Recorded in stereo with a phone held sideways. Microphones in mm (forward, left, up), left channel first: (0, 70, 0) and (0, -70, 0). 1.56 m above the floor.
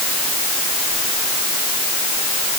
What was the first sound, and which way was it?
Only background noise.